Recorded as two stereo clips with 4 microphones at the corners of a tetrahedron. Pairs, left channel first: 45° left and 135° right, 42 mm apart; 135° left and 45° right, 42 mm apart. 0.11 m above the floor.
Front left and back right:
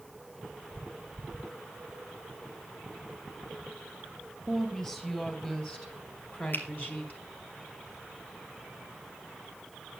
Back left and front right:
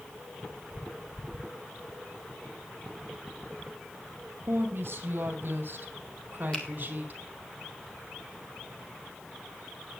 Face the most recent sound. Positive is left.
turn(degrees=75)